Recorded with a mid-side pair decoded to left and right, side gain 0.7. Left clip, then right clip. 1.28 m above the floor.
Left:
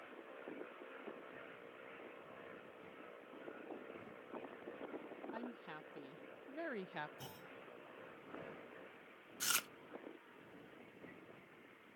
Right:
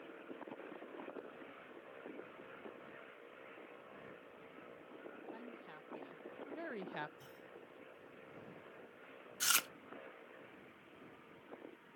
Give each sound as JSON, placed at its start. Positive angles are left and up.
{"t": 5.3, "sound": "a woman speaking", "azimuth_deg": 25}
{"t": 7.2, "sound": "a clunk", "azimuth_deg": 40}
{"t": 9.4, "sound": "chewing", "azimuth_deg": -25}